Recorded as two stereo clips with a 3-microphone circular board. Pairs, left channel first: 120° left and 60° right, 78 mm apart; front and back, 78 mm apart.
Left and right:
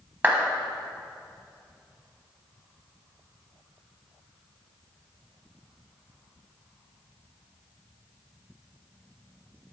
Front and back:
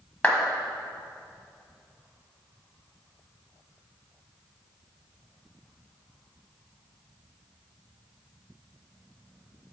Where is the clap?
45° right, 1.3 m.